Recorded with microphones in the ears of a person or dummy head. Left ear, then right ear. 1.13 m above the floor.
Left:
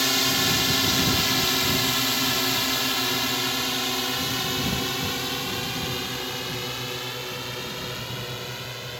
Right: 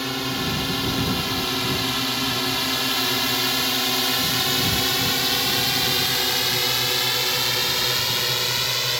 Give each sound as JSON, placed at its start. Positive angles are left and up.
{"t": 0.0, "sound": "a drone", "side_deg": 30}